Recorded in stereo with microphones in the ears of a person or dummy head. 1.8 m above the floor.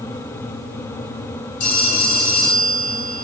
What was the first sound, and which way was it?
A phone ringing, 70° left (ahead or behind).